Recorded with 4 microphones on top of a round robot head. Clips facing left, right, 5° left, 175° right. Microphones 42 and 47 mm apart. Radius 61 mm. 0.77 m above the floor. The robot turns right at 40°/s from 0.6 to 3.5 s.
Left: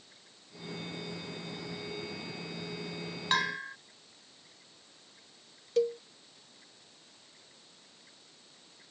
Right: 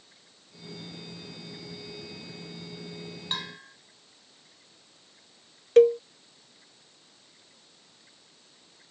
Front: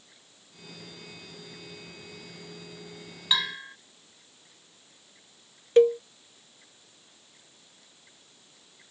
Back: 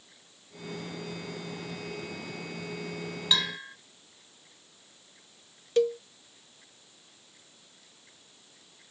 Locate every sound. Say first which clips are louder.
3.3 s a bell: left 7 dB, front 1 dB; 85° left; by 3.8 s 90° left
5.8 s a cowbell: right 12 dB, front 6 dB; 55° right